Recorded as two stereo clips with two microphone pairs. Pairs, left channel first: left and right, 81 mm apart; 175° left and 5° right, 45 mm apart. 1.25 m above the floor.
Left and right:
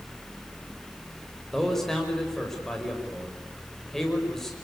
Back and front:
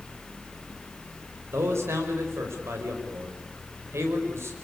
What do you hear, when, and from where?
1.5 s a man speaking: 5° left, 5 m